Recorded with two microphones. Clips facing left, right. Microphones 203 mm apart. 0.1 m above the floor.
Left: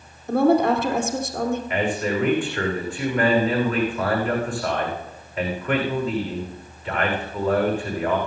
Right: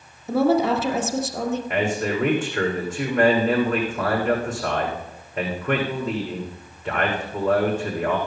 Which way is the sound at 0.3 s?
5° right (ahead or behind).